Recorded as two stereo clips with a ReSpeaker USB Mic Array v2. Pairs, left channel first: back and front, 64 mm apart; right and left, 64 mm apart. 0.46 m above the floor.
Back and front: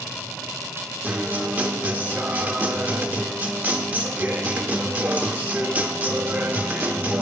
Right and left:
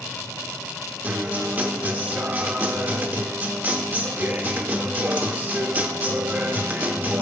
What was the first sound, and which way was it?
A guitar, 50° left.